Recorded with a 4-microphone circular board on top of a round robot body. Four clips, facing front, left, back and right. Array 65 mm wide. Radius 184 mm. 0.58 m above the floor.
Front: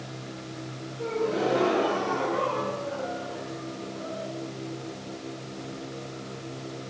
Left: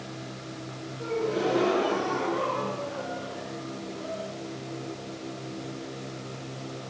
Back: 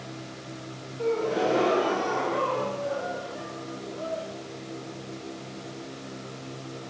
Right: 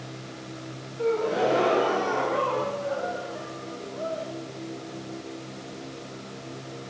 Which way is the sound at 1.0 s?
110° right.